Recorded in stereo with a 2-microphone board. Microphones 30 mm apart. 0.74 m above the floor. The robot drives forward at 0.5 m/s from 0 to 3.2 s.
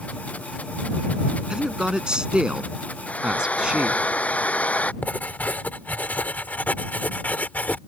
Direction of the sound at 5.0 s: 70° left (ahead or behind).